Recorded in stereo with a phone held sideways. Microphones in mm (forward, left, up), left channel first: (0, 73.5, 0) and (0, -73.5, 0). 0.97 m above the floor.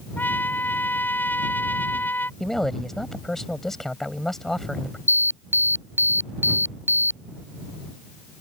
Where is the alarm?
15° right (ahead or behind).